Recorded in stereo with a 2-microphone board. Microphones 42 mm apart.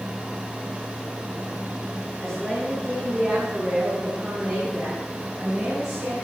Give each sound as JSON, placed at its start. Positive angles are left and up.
{"t": 2.2, "sound": "a woman speaking", "side_deg": 15, "distance_m": 6.5}